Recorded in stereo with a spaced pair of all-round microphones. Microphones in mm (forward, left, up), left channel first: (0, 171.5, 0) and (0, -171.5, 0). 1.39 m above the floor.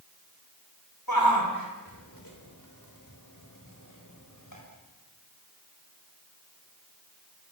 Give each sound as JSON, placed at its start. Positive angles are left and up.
{"t": 1.1, "sound": "a shout", "side_deg": 90, "distance_m": 4.5}